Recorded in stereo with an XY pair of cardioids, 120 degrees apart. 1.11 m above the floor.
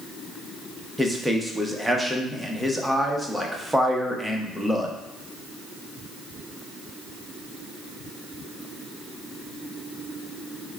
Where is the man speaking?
Straight ahead, 0.8 m.